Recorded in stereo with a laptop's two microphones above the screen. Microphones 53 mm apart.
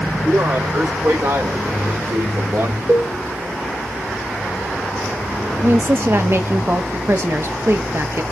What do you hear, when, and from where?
0.2 s a man speaking: 70° right (ahead or behind), 3 m; by 2.8 s 60° right (ahead or behind), 1.8 m
2.9 s a cowbell: 60° right (ahead or behind), 1.6 m
5.6 s a woman speaking: 50° right (ahead or behind), 0.7 m